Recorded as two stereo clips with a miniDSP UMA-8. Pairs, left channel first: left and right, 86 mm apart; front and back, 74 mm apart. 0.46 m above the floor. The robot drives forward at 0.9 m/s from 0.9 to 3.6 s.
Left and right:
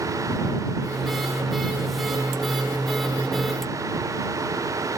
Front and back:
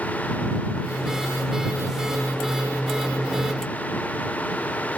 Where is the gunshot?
No gunshot in this recording.